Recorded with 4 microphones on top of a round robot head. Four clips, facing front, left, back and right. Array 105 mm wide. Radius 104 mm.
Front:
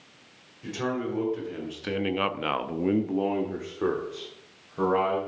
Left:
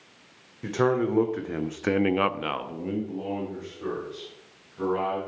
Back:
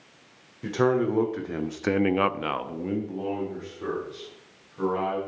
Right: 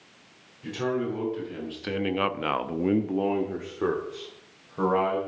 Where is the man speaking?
130° left, 2 m; by 5.2 s 50° right, 3 m.